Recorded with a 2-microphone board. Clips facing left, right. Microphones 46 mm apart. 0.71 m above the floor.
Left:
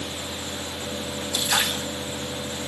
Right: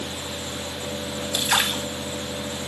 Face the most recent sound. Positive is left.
turn(degrees=-30)  # may be behind; listen again after turning